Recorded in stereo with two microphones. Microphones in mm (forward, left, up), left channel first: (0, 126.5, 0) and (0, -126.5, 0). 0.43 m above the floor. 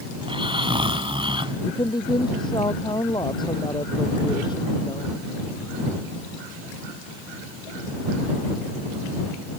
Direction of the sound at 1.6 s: 15° left (ahead or behind).